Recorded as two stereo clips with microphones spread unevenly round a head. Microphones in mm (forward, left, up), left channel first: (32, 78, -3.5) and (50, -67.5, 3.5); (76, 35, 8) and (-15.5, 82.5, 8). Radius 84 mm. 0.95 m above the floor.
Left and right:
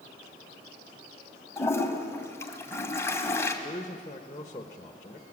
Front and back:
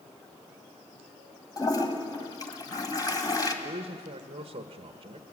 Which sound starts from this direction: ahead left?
A toilet flushing, at 1.6 s.